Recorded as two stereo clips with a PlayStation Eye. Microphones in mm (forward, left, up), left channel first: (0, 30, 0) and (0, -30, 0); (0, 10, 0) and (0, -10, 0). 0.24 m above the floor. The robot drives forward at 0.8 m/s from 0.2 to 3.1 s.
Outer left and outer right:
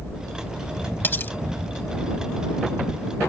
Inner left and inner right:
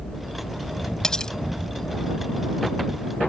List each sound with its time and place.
1.0 s cutlery clinking: 35° left (ahead or behind)